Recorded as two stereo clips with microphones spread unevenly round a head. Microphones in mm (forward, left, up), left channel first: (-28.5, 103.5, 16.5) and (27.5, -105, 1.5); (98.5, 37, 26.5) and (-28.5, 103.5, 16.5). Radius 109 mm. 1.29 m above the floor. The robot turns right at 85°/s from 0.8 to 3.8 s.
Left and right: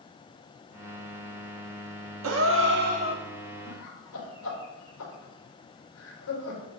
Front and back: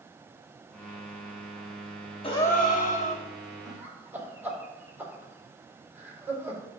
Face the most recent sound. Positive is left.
turn(degrees=75)